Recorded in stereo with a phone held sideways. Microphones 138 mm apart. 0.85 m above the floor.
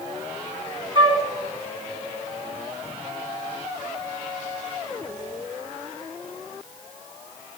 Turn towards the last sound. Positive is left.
turn(degrees=-40)  # may be behind; listen again after turning